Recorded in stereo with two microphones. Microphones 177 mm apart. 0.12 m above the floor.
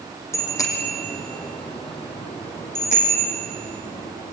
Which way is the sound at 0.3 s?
15° left (ahead or behind).